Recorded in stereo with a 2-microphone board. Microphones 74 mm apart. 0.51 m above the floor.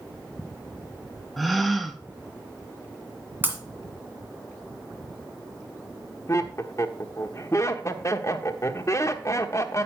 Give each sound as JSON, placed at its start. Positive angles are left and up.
{"t": 1.4, "sound": "a gasp", "side_deg": 0, "distance_m": 0.7}
{"t": 3.4, "sound": "breaking glass", "side_deg": -25, "distance_m": 1.9}
{"t": 6.3, "sound": "laughter", "side_deg": 40, "distance_m": 1.0}